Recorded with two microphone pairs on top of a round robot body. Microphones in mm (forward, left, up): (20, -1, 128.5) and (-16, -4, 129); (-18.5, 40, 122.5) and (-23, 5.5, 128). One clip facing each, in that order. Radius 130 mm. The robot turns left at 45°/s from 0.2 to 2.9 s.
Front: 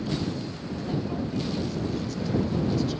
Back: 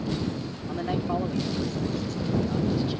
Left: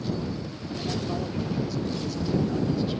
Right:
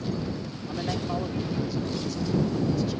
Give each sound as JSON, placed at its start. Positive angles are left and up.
{"t": 0.7, "sound": "a man speaking", "azimuth_deg": -140}